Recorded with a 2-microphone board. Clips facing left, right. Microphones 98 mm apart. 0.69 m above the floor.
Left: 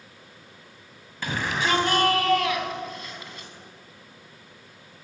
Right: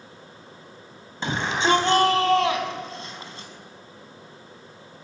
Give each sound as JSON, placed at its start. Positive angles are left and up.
{"t": 1.2, "sound": "a shout", "side_deg": -25, "distance_m": 4.5}